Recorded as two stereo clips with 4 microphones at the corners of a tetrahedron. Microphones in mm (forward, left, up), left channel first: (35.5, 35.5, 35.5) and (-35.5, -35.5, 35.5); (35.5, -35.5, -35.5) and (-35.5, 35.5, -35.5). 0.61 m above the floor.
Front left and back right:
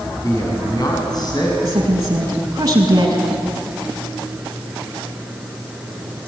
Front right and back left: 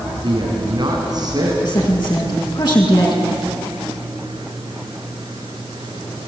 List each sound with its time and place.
0.2 s a man speaking: 100° left, 6.5 m; by 1.5 s 85° left, 5 m
1.6 s a woman speaking: 85° right, 6.5 m